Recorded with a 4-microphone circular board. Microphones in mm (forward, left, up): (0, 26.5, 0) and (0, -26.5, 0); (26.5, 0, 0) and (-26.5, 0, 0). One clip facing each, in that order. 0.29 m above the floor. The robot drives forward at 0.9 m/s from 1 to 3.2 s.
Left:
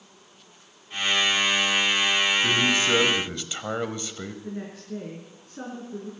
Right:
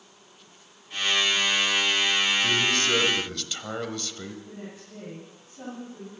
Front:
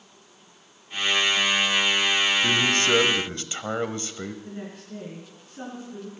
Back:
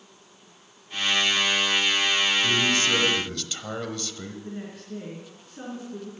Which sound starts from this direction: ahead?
A man speaking, at 2.4 s.